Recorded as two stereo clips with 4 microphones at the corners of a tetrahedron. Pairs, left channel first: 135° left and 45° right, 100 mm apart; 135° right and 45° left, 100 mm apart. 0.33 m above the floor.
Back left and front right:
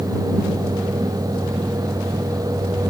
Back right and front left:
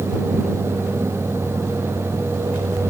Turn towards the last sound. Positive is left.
No sound to turn to.